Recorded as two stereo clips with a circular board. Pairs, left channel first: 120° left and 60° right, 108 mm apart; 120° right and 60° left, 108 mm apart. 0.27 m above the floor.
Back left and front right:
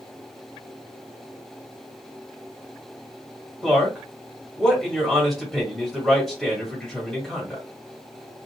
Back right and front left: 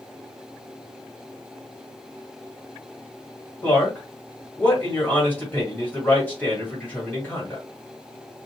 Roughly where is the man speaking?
Behind right.